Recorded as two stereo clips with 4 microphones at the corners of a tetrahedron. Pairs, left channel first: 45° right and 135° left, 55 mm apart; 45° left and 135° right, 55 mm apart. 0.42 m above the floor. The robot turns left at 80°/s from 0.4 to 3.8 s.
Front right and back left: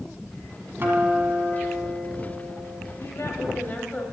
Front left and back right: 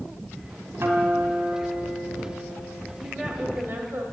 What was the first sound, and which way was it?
A guitar, 175° right.